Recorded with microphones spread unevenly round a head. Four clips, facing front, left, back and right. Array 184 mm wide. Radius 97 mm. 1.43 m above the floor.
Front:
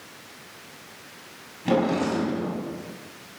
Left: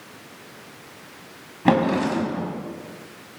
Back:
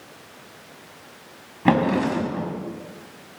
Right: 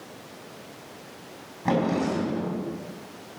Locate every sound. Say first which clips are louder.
1.6 s a drawer: left 5 dB, back 3 dB; 120° left, 4.5 m